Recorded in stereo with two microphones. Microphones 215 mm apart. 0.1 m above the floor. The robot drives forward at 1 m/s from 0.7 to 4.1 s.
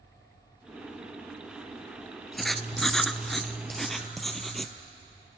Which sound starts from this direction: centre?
Writing, at 2.4 s.